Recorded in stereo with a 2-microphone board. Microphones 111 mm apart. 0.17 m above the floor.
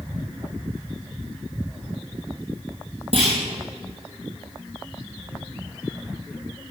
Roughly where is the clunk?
Right.